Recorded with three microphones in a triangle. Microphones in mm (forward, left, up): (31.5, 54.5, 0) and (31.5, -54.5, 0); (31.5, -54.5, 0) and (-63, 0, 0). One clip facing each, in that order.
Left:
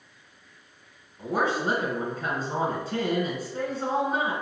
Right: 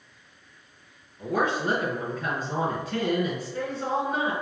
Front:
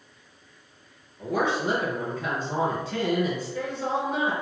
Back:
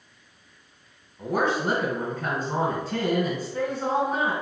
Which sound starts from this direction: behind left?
A woman speaking, at 1.2 s.